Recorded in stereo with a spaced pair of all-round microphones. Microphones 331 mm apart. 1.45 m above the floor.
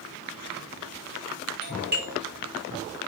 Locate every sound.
1.6 s a doorbell: 30° right (ahead or behind), 3 m